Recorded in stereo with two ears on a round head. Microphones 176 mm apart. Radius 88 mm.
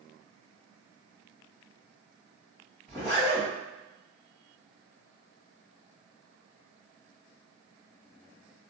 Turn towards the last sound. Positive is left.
turn(degrees=10)  # may be behind; listen again after turning